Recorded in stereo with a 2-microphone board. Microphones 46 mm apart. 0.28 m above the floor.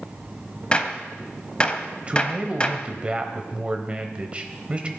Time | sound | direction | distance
0.7 | a gunshot | 25° left (ahead or behind) | 0.8 m
2.1 | a man speaking | 25° right (ahead or behind) | 1.0 m